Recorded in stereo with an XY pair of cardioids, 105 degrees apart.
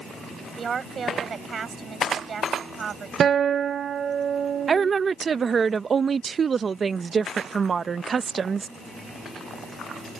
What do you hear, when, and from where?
0.6 s a woman speaking: 45° right
3.2 s a guitar: 50° right
4.7 s a woman speaking: 35° right